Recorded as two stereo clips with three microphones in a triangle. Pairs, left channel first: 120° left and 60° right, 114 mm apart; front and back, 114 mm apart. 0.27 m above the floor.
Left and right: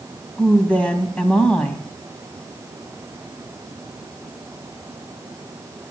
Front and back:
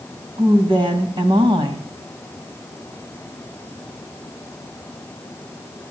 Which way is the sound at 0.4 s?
165° right.